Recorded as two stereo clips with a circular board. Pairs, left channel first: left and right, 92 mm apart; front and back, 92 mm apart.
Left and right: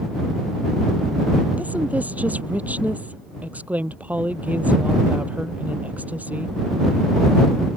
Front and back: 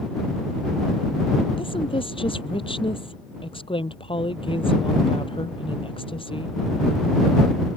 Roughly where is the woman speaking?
Ahead.